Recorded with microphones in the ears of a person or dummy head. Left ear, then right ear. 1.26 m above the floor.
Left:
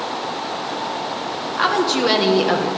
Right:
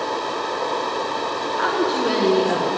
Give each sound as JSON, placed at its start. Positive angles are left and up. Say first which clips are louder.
{"t": 1.6, "sound": "a woman speaking", "louder": "left 4 dB", "side_deg": 30, "distance_m": 1.6}